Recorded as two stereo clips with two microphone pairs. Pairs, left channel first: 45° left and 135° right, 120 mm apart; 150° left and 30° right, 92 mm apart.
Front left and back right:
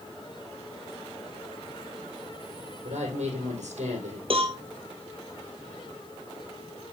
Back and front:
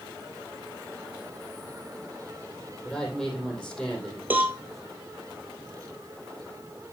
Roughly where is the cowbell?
Right.